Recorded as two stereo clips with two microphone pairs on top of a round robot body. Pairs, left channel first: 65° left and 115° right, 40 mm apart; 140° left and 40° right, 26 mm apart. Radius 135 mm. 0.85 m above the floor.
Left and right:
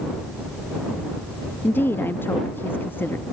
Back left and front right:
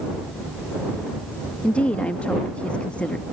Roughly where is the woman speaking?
Left.